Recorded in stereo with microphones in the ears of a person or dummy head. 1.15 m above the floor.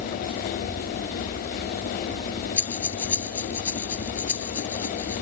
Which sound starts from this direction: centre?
Breathing, at 2.6 s.